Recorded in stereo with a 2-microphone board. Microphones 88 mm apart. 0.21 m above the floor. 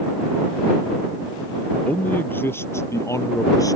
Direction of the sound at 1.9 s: 15° left (ahead or behind).